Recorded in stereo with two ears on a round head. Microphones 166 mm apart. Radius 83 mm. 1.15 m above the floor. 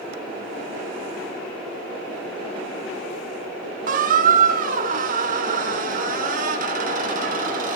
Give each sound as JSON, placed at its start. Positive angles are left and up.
{"t": 3.9, "sound": "a squeak", "side_deg": -45, "distance_m": 1.0}